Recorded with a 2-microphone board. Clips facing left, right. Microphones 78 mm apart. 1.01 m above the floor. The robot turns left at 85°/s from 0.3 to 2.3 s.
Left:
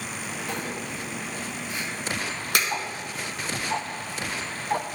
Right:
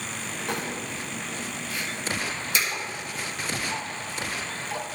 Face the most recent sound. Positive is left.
turn(degrees=40)  # may be behind; listen again after turning